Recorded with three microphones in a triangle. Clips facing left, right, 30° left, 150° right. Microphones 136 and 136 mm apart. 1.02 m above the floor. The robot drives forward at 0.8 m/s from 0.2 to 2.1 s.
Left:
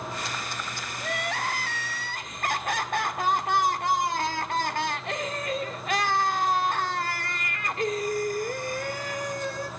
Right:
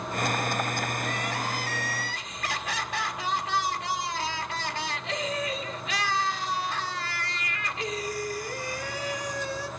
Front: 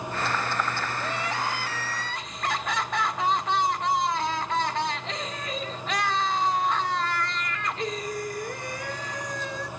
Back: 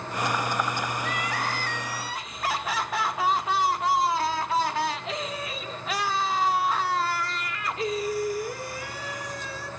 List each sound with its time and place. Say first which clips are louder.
1.0 s crying: even, even; 75° left, 1.0 m; by 9.7 s 125° left, 1.2 m